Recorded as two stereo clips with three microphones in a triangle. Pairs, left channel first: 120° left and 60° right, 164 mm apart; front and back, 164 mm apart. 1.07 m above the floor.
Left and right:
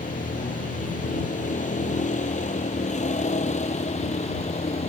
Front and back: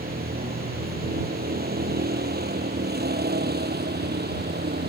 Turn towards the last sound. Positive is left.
turn(degrees=170)